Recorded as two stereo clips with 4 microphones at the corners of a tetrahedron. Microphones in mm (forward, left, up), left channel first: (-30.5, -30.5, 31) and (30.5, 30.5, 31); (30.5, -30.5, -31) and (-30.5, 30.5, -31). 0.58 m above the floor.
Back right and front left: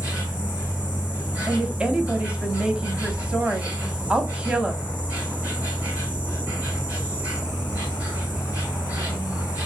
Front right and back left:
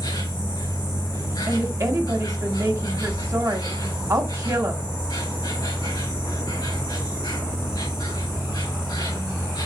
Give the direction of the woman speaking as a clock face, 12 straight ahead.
8 o'clock.